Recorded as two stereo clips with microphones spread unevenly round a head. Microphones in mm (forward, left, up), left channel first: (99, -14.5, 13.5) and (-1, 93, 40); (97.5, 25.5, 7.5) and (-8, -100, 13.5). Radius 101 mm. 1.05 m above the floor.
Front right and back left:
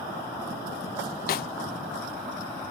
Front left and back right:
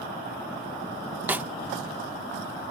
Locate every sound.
1.3 s a snare drum: 50° right